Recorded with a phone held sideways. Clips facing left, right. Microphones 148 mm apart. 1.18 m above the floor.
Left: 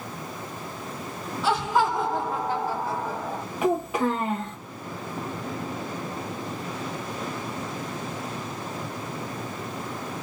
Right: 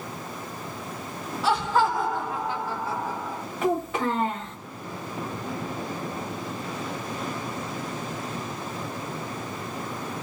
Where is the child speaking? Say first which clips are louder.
Left 1 dB; 10° left (ahead or behind), 0.8 m.